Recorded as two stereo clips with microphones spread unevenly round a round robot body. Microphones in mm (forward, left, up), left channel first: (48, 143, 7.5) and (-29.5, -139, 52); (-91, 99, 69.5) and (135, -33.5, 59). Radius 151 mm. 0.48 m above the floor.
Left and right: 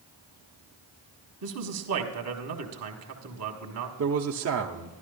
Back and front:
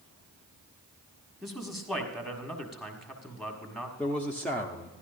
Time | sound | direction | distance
1.4 | a man speaking | 120° right | 1.6 m
4.0 | a man speaking | 125° right | 0.9 m